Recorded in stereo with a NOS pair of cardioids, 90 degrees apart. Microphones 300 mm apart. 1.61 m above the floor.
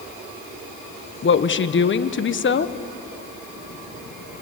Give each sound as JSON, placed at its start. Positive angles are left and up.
{"t": 1.2, "sound": "a woman speaking", "azimuth_deg": 40, "distance_m": 1.3}